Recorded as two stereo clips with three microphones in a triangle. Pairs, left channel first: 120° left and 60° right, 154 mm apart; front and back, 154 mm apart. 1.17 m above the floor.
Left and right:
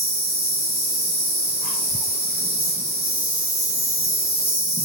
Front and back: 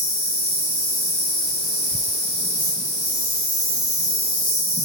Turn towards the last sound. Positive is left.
turn(degrees=-175)